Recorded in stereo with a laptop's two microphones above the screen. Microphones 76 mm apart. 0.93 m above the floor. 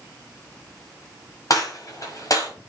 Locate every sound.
1.5 s a gunshot: 50° left (ahead or behind), 5 m